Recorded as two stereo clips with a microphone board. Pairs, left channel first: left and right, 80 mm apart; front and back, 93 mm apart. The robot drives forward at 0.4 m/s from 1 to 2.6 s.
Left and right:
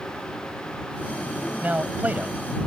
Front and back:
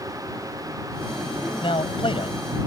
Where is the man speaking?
20° right.